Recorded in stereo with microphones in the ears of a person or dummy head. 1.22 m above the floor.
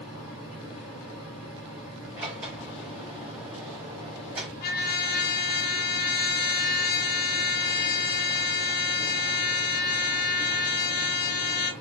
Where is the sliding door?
5° right (ahead or behind), 3 m.